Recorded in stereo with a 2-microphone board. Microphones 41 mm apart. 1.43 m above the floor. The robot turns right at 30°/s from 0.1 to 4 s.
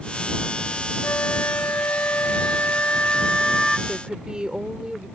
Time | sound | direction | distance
1.0 | a flute | 90° left | ?
3.9 | a woman speaking | 25° right (ahead or behind) | ?